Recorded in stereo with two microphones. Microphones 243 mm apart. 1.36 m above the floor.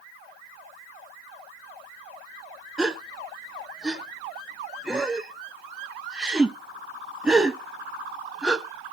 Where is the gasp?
5° right (ahead or behind), 0.8 m.